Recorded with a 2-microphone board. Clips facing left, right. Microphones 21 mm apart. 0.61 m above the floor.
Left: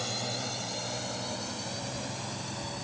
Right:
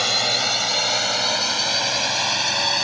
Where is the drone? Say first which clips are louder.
Right 14 dB; 55° right (ahead or behind); by 2.9 s 65° right (ahead or behind).